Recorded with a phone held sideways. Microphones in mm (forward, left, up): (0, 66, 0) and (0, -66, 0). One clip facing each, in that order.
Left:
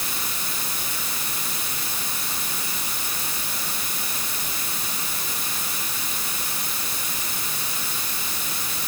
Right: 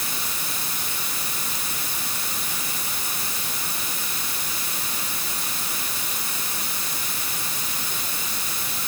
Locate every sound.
Only background noise.